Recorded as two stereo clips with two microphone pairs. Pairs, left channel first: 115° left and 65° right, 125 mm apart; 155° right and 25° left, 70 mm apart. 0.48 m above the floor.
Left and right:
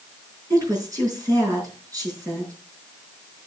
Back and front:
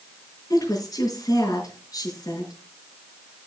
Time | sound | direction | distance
0.5 | a woman speaking | 130° right | 5.5 m